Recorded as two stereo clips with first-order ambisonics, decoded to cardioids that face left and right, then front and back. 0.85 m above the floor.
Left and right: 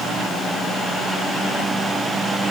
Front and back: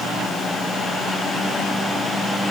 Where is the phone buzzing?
No phone buzzing in this recording.